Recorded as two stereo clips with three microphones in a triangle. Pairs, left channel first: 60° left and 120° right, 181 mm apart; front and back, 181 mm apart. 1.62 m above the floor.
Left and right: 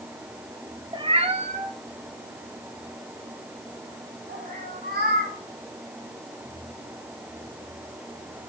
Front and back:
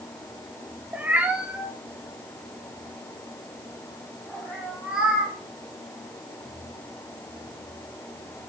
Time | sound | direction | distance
0.9 | a cat meowing | 110° right | 1.0 m